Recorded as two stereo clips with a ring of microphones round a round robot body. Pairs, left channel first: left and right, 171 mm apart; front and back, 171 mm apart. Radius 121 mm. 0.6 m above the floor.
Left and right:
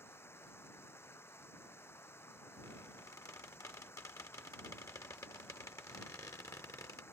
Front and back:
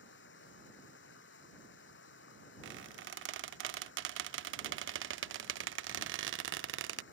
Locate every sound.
0.0 s running water: 15° left
2.6 s a squeak: 170° left